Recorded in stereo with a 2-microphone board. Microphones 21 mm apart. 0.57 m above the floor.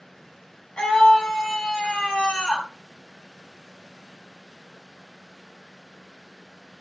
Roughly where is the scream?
Left.